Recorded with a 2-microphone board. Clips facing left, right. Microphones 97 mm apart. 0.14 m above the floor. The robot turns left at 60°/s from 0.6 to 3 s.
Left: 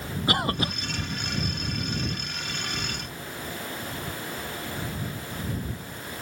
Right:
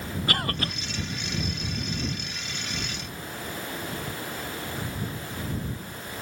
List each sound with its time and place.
0.3 s a cough: 20° left (ahead or behind); by 0.7 s 10° left (ahead or behind)